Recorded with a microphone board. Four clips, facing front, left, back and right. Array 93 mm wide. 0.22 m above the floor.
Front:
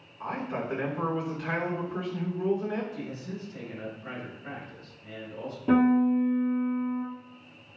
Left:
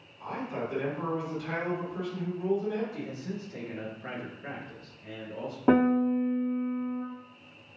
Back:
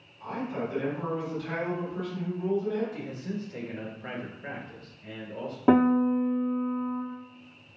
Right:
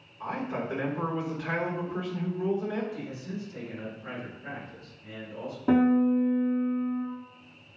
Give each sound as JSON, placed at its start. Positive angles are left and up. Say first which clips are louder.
{"t": 0.2, "sound": "a man speaking", "louder": "right 2 dB, even", "azimuth_deg": -30, "distance_m": 2.5}
{"t": 2.9, "sound": "a man speaking", "louder": "even, back 2 dB", "azimuth_deg": 150, "distance_m": 3.0}
{"t": 5.7, "sound": "a piano", "louder": "right 1 dB, back 1 dB", "azimuth_deg": 145, "distance_m": 1.8}